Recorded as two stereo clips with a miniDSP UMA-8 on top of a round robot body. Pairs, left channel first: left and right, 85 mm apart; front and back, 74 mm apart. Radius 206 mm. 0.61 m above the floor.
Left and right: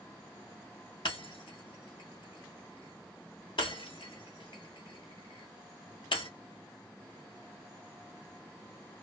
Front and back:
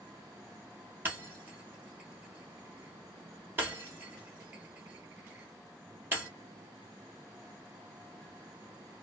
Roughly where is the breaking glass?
Behind left.